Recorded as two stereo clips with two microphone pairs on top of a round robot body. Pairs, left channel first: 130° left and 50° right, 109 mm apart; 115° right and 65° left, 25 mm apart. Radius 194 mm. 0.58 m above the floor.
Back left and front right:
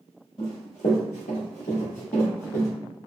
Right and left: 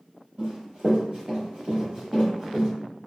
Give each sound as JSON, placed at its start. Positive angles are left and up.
{"t": 0.4, "sound": "running footsteps", "azimuth_deg": 85, "distance_m": 0.8}